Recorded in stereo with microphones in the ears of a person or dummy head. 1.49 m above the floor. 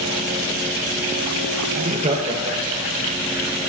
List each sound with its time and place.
1.8 s laughter: 45° right (ahead or behind), 0.7 m; by 3.0 s 20° right (ahead or behind), 1.7 m